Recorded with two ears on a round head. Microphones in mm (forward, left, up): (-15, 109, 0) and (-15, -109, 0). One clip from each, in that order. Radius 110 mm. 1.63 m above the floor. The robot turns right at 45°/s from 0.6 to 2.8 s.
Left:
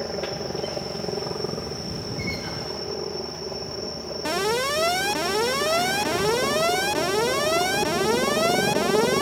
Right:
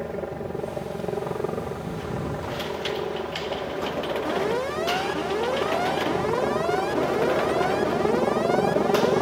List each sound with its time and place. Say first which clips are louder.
0.0 s a helicopter: left 2 dB; 175° left; by 9.2 s 90° right
4.2 s an alarm: left 6 dB; 65° left (ahead or behind)